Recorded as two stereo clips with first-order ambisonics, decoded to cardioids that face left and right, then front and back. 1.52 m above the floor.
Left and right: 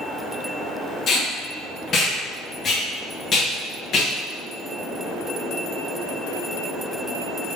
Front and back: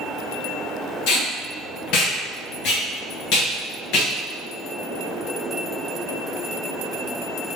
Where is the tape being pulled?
25° left, 1.3 m.